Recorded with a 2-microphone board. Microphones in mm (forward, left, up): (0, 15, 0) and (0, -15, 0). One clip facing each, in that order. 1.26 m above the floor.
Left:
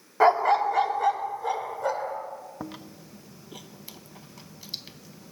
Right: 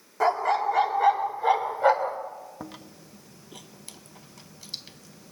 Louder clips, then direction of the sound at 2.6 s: Left 2 dB; 10° left (ahead or behind).